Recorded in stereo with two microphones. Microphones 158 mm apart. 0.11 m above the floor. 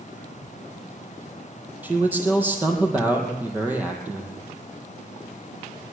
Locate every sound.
1.8 s a man speaking: 10° right (ahead or behind), 4 m